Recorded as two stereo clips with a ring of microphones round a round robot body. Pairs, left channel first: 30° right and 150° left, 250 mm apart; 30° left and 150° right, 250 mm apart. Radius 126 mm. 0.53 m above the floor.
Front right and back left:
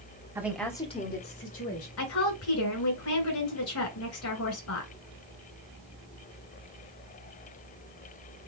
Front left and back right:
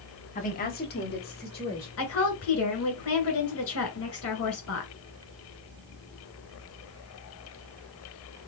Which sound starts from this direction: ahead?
A woman speaking, at 2.0 s.